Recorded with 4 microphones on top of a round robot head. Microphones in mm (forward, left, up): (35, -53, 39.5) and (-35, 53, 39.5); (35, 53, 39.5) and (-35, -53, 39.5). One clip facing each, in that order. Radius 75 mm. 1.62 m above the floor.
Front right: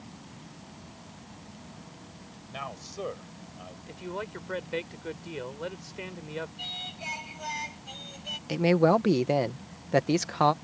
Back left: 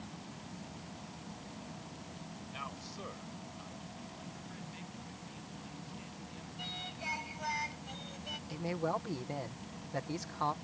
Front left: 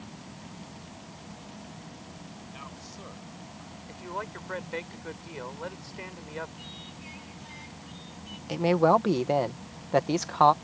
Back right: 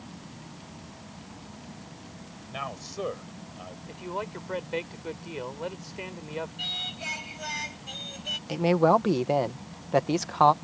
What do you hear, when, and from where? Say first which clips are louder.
2.5 s a man speaking: front right 10 dB, back right 8 dB; 95° right
3.9 s a man speaking: front right 11 dB, back right 2 dB; 50° right
6.6 s singing: front right 2 dB, back right 4 dB; 125° right
8.5 s a man speaking: front right 14 dB, even; 35° right